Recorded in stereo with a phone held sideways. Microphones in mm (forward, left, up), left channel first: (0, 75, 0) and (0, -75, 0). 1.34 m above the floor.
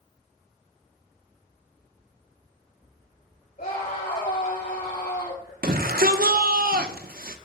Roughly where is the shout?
Right.